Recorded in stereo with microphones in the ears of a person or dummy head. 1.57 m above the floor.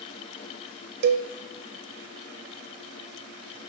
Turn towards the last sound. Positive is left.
turn(degrees=-55)  # may be behind; listen again after turning